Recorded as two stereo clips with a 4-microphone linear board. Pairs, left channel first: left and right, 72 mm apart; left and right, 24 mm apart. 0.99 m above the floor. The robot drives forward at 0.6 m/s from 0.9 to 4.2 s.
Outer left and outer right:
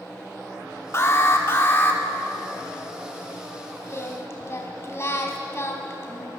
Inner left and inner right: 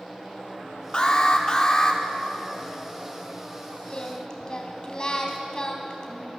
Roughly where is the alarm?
Left.